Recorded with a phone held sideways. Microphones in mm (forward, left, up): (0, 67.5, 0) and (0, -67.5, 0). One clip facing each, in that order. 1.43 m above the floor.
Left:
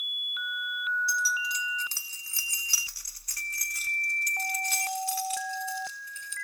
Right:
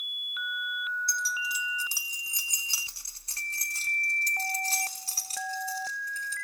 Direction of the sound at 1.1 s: 5° left (ahead or behind).